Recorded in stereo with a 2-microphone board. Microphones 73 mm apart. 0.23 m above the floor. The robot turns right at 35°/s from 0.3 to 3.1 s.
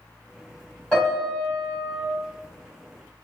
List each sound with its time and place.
0.9 s a piano: 15° left, 1.8 m; by 2.0 s 55° left, 1.8 m